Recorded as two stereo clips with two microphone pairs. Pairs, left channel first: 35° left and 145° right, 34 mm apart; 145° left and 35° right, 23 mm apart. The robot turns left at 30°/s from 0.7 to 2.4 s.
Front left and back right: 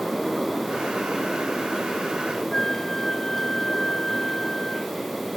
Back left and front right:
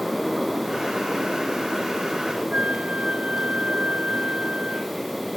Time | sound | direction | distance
2.5 | a flute | 40° right | ?